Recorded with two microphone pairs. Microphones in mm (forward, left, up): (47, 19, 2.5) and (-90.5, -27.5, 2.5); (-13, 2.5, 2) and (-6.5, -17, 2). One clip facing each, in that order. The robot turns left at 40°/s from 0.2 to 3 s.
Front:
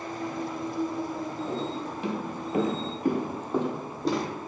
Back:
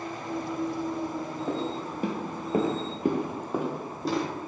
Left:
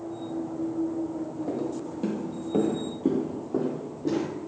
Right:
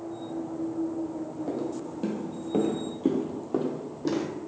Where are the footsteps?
145° right, 0.9 m; by 4.2 s 70° right, 1.0 m.